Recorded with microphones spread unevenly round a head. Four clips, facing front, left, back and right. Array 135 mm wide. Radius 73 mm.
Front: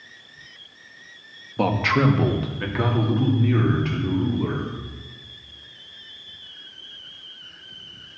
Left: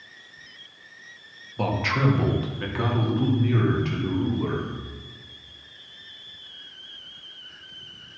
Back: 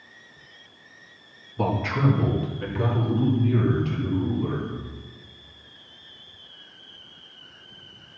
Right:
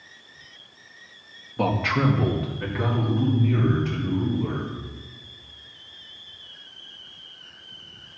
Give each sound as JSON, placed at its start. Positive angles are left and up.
{"t": 1.6, "sound": "a man speaking", "azimuth_deg": -15, "distance_m": 2.0}